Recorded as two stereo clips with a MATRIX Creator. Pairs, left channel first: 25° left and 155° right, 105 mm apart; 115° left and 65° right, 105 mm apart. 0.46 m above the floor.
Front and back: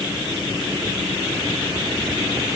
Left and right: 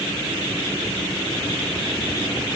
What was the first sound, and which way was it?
Only background noise.